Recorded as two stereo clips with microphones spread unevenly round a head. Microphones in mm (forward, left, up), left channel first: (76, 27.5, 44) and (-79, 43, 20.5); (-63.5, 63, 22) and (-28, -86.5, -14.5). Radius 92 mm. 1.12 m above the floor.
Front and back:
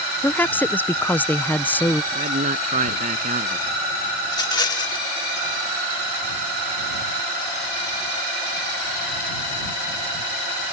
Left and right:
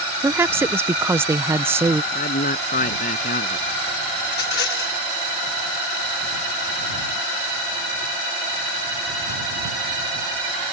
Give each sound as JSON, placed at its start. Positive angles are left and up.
{"t": 0.2, "sound": "a woman speaking", "azimuth_deg": -90}
{"t": 2.1, "sound": "a man speaking", "azimuth_deg": 135}
{"t": 4.2, "sound": "a rattle", "azimuth_deg": 60}